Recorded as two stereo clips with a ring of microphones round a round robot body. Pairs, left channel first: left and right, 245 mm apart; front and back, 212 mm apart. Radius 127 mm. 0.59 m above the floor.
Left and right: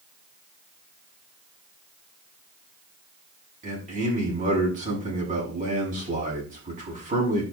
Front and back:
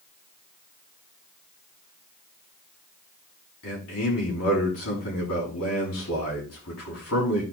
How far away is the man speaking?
About 6.5 m.